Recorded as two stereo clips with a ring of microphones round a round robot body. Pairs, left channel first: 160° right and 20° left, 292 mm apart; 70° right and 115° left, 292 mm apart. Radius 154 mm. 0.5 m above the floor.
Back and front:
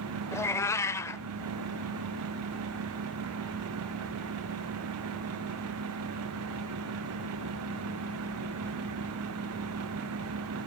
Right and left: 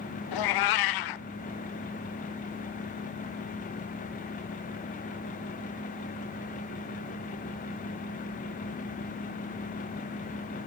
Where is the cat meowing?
75° right, 0.6 m.